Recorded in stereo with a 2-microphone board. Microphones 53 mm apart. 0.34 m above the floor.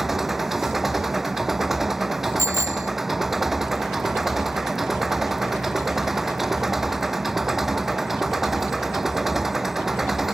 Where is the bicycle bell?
75° right (ahead or behind).